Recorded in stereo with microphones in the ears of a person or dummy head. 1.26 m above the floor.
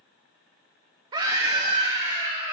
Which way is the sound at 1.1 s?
20° right (ahead or behind).